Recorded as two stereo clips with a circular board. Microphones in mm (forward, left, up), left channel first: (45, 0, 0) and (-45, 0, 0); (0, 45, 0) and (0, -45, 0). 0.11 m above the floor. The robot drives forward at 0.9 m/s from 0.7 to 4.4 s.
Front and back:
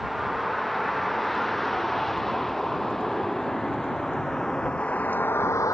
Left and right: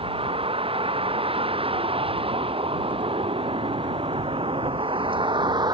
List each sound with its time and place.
0.0 s a vehicle: 90° right; by 5.8 s 50° right